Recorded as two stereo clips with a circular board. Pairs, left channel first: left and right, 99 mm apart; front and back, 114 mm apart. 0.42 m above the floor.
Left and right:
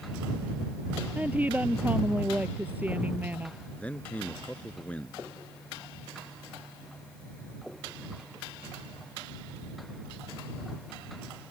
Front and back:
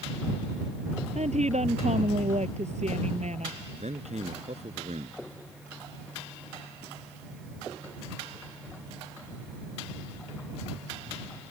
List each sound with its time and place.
1.1 s a woman speaking: 165° right
3.8 s a man speaking: 165° left